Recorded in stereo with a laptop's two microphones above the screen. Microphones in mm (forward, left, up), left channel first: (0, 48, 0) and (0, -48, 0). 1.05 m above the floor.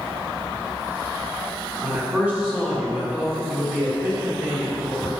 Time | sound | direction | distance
1.8 | a man speaking | 15° right (ahead or behind) | 2.5 m